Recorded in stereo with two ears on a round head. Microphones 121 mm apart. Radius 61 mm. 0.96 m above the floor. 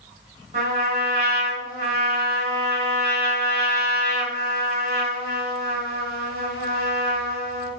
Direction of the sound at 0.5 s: 55° right (ahead or behind).